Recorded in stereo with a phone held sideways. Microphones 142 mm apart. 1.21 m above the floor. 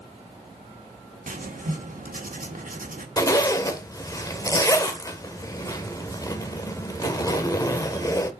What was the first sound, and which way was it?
Writing, 70° right (ahead or behind).